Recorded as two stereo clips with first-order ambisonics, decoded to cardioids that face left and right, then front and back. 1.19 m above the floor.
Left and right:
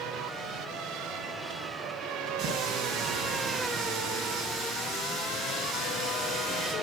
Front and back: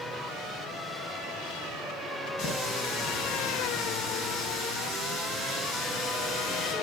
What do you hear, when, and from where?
2.4 s a running tap: 30° right, 5.5 m